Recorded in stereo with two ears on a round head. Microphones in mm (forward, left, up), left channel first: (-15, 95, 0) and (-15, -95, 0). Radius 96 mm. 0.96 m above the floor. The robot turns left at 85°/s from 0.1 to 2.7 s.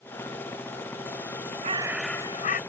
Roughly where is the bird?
Behind right.